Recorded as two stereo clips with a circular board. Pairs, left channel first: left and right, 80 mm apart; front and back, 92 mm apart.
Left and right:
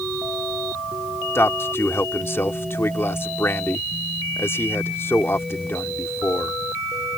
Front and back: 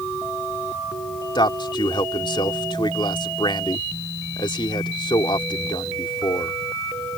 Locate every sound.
1.4 s a man speaking: 30° left